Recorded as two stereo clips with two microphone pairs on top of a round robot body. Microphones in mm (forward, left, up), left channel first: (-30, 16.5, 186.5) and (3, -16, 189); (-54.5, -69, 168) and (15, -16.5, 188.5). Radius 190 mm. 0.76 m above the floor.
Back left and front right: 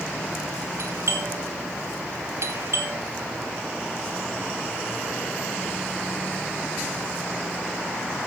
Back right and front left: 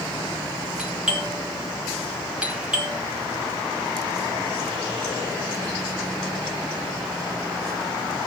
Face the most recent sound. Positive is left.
turn(degrees=-45)